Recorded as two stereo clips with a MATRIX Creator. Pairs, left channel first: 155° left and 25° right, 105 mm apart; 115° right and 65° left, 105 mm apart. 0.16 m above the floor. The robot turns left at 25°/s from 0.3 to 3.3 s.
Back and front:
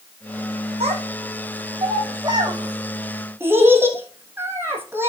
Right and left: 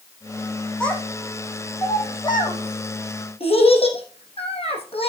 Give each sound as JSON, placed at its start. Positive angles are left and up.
{"t": 0.8, "sound": "a child speaking", "azimuth_deg": -30, "distance_m": 4.0}